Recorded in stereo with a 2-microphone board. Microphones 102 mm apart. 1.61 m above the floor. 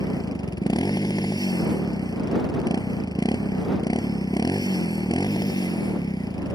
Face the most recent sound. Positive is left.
turn(degrees=40)  # may be behind; listen again after turning